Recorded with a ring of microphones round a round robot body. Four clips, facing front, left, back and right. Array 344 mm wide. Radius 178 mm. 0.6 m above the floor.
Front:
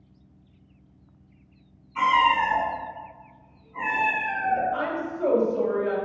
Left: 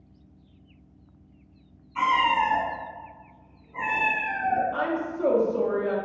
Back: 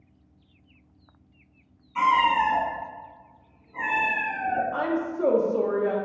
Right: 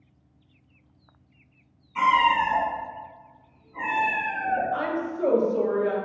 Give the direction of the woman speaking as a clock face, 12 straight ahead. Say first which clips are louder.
Even, back 2 dB; 6 o'clock.